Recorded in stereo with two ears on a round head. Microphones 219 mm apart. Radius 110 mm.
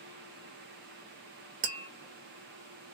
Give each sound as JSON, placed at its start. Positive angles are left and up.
{"t": 1.6, "sound": "tapping", "side_deg": -35, "distance_m": 0.8}